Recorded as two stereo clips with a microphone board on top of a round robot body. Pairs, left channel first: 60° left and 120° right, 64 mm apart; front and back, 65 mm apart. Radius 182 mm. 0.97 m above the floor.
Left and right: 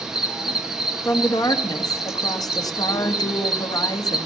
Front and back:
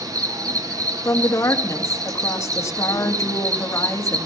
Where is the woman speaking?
45° left, 2 m.